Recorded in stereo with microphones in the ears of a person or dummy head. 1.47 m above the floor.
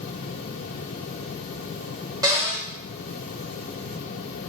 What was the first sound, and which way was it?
A cupboard door, 20° right (ahead or behind).